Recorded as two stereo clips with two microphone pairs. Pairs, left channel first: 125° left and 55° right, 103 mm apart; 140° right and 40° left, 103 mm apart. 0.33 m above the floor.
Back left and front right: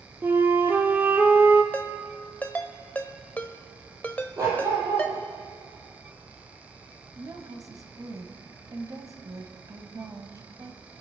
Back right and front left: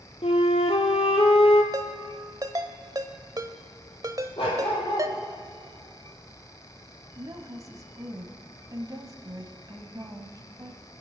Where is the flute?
125° right, 1.3 m.